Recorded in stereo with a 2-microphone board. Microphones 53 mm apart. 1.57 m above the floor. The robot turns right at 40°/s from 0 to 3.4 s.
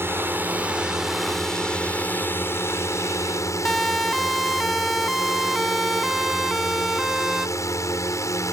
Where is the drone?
50° right; by 8.5 s 85° left.